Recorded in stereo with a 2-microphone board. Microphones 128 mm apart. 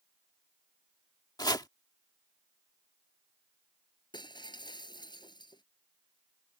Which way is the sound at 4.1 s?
35° left (ahead or behind).